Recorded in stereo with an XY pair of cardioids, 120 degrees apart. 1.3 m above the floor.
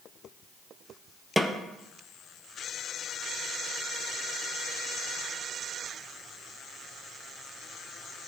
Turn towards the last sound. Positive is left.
turn(degrees=5)